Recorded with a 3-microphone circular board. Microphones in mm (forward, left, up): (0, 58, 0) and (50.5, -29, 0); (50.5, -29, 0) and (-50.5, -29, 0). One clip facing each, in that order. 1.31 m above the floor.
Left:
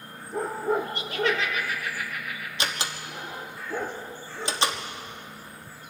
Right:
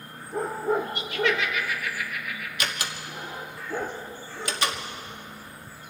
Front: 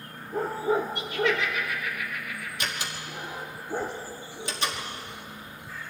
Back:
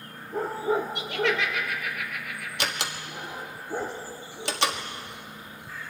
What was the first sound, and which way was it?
Laughter, 170° left.